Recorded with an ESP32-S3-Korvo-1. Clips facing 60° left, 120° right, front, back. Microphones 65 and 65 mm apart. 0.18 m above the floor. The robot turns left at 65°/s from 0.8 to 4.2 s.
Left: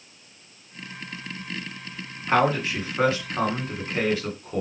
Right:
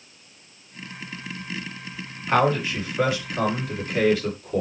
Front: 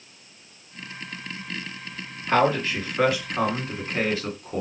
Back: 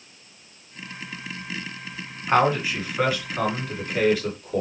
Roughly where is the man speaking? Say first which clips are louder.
Right 1 dB, back 1 dB; behind left.